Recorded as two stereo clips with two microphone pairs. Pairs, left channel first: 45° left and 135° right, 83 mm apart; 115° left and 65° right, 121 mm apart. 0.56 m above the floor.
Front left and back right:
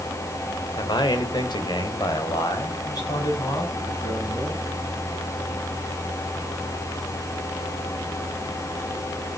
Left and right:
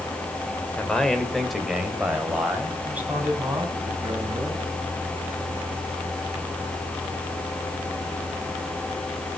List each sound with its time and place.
0.8 s a man speaking: 35° left, 1.9 m; by 4.6 s 5° left, 5 m